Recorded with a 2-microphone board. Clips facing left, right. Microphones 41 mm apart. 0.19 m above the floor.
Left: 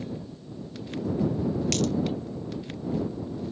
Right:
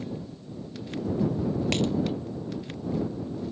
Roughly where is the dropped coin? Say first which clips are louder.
Right 2 dB; right.